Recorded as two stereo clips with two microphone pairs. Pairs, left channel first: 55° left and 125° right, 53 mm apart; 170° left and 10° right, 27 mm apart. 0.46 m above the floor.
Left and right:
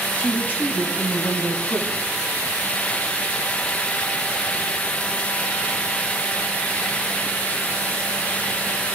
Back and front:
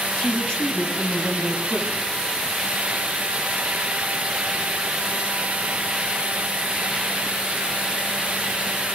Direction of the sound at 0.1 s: 125° left.